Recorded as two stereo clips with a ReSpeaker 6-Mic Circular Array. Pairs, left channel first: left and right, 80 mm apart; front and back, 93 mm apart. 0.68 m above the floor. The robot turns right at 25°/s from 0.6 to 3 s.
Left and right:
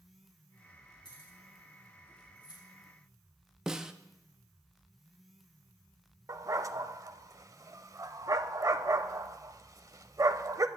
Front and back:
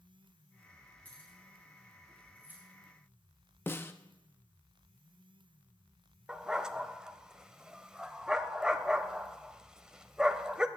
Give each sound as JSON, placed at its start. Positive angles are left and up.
{"t": 1.1, "sound": "keys jangling", "azimuth_deg": 75, "distance_m": 4.0}
{"t": 3.7, "sound": "a snare drum", "azimuth_deg": -20, "distance_m": 0.6}
{"t": 6.3, "sound": "a dog barking", "azimuth_deg": -100, "distance_m": 0.5}